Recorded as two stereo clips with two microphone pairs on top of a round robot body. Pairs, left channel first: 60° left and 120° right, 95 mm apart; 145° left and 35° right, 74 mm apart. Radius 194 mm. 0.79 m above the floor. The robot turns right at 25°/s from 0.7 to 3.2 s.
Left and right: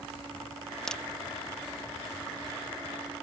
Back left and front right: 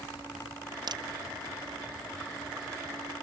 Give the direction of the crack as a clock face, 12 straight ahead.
1 o'clock.